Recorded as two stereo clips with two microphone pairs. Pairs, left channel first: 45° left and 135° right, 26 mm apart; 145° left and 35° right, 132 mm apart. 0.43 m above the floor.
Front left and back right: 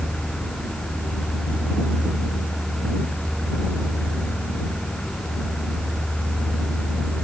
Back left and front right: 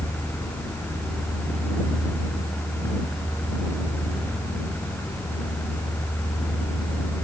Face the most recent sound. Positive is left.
No sound to turn to.